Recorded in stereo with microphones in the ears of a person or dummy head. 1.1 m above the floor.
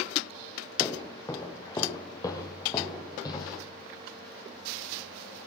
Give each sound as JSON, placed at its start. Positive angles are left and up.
{"t": 0.8, "sound": "footsteps", "side_deg": 15, "distance_m": 1.4}